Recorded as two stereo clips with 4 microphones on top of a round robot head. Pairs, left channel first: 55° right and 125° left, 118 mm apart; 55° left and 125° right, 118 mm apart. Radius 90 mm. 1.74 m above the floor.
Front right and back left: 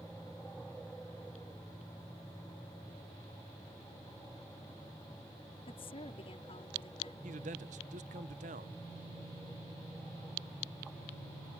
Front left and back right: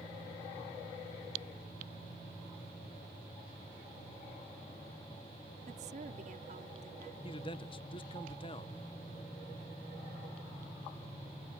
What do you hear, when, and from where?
5.7 s a woman speaking: 100° right
7.2 s a man speaking: 100° left